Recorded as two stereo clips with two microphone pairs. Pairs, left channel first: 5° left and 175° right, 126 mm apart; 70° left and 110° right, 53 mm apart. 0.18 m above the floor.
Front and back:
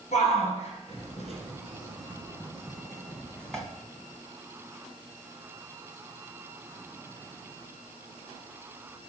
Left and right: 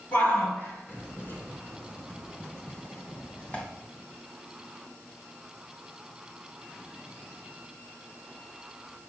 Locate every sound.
0.1 s a shout: 20° left, 3.5 m; by 3.6 s 90° left, 1.5 m